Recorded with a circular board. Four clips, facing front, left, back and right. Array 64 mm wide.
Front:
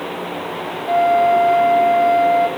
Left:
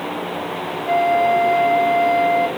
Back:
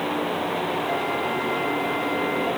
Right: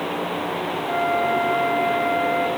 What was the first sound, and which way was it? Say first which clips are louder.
A flute: left 6 dB, front 11 dB; 70° left.